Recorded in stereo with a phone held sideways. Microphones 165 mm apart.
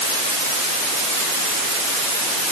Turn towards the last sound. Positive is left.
No sound to turn to.